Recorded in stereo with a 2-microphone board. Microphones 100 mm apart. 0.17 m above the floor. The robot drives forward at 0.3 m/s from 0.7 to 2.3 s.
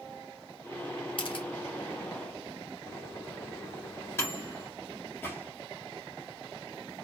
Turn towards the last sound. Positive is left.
turn(degrees=20)  # may be behind; listen again after turning